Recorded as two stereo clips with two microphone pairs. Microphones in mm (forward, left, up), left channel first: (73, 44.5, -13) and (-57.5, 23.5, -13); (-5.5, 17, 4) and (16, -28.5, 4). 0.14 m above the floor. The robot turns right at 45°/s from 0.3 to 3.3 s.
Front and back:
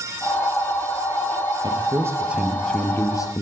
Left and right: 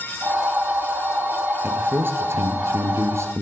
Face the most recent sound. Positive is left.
turn(degrees=-45)